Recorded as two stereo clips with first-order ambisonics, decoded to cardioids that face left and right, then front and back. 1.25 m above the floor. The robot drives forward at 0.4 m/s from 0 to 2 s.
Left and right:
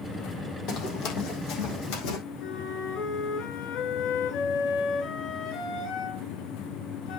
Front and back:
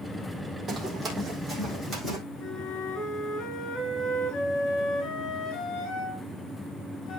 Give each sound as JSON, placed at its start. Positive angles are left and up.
{"t": 0.7, "sound": "running footsteps", "azimuth_deg": 120, "distance_m": 3.0}
{"t": 2.4, "sound": "a flute", "azimuth_deg": 55, "distance_m": 5.0}